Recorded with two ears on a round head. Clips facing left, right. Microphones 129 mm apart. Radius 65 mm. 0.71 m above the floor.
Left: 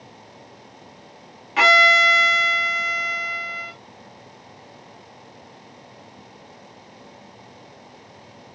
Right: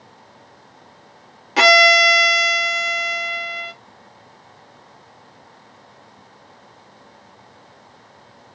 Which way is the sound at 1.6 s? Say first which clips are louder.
Right 4 dB; 40° right (ahead or behind).